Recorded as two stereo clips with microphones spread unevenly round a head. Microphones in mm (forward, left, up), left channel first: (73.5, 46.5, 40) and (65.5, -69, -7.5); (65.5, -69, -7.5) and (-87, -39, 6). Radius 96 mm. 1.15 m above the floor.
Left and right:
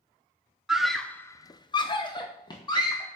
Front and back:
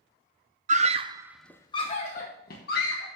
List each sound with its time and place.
0.7 s a scream: 155° right, 0.8 m; by 3.1 s 20° left, 1.7 m